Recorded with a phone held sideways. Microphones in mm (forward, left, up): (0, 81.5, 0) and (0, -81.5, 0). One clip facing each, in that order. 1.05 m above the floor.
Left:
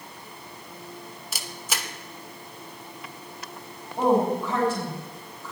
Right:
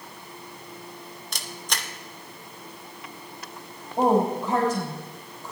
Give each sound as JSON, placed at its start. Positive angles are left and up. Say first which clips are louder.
{"t": 1.3, "sound": "a camera shutter", "louder": "left 1 dB", "side_deg": 5, "distance_m": 0.8}
{"t": 4.0, "sound": "a woman speaking", "louder": "even", "side_deg": -45, "distance_m": 4.0}